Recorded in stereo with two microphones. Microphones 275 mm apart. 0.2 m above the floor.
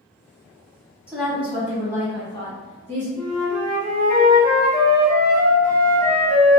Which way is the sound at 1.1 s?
5° right (ahead or behind).